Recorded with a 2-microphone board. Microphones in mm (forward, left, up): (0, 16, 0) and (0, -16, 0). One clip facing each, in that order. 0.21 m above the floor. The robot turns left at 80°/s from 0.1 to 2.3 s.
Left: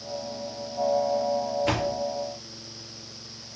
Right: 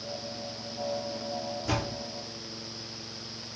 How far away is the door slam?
About 2.5 m.